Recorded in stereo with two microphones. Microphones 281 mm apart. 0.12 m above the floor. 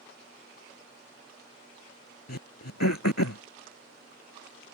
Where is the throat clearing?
75° left (ahead or behind).